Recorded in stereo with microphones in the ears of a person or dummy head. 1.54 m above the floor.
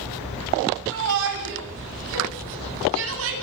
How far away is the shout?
About 10 m.